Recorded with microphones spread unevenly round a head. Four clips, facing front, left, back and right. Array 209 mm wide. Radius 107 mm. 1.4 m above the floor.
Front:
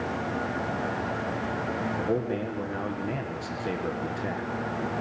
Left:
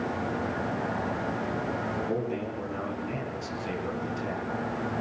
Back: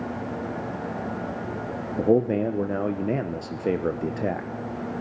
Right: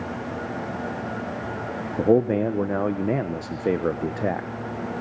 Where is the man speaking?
125° right, 1.3 m.